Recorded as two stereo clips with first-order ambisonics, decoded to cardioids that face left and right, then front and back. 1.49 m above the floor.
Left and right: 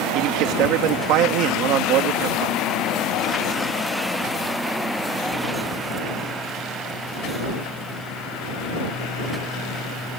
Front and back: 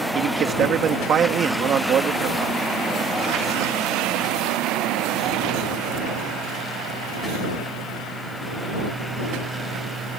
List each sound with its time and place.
0.1 s a man speaking: 125° right